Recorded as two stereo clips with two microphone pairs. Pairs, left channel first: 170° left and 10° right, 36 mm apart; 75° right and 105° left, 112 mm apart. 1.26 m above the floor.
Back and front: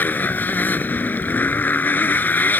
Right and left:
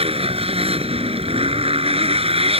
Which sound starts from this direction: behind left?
A motorcycle, at 0.0 s.